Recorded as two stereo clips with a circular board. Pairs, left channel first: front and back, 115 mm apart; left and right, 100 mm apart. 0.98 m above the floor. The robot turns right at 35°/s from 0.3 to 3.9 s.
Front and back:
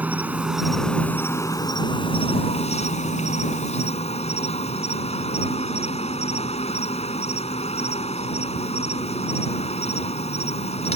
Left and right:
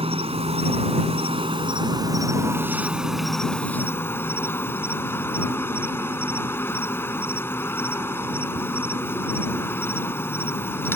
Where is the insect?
105° right; by 11.0 s 25° left.